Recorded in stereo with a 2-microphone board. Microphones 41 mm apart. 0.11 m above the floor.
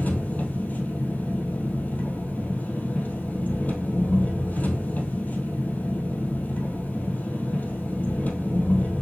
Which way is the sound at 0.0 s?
45° left (ahead or behind).